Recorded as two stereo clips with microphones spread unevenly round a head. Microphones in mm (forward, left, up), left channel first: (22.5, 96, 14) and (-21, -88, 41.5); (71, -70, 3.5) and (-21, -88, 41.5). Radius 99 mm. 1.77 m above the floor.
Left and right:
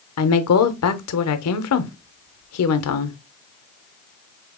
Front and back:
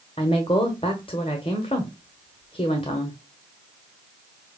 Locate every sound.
0.2 s a woman speaking: 85° left, 0.6 m